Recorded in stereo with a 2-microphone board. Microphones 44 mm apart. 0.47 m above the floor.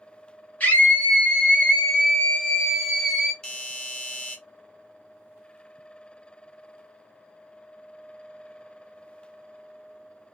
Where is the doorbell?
20° left (ahead or behind), 1.1 m.